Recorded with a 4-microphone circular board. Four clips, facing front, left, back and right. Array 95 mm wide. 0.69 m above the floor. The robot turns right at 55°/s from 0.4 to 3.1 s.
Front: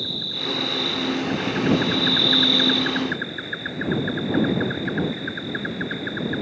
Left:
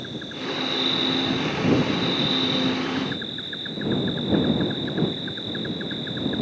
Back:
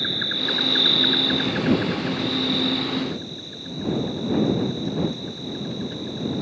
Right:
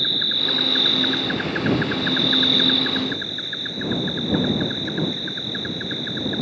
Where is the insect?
160° right; by 6.4 s 10° right.